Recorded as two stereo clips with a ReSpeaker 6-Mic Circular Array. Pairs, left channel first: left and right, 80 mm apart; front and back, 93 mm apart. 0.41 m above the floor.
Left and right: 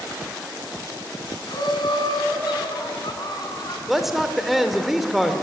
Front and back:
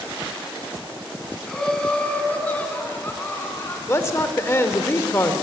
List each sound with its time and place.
1.5 s laughter: 85° left, 3 m; by 3.8 s 60° left, 3.5 m
3.9 s a man speaking: 10° right, 1.3 m